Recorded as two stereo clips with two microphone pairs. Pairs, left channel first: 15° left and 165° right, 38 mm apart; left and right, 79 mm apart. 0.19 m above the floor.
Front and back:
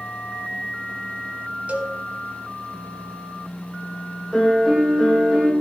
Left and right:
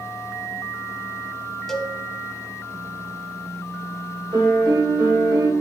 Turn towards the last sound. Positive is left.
turn(degrees=-75)